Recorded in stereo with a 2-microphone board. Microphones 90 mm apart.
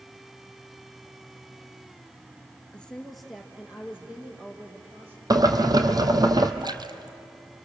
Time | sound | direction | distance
2.7 | a woman speaking | 10° left (ahead or behind) | 1.9 m
5.3 | boiling | 45° right (ahead or behind) | 1.4 m
6.6 | a splash | 50° right (ahead or behind) | 1.0 m